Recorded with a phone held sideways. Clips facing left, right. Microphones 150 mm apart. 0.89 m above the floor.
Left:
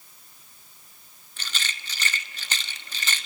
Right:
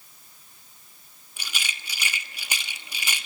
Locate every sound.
1.4 s a rattle: 10° right (ahead or behind), 1.1 m